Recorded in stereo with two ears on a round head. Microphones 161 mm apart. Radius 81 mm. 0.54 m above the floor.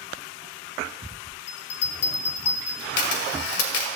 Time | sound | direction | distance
1.5 | a bell | 65° left (ahead or behind) | 1.4 m
3.0 | a camera shutter | 65° left (ahead or behind) | 2 m